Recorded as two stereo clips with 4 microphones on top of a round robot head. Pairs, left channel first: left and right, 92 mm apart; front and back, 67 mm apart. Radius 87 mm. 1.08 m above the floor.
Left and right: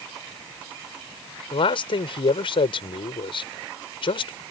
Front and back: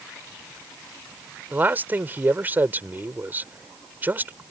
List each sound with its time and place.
1.5 s a man speaking: 115° left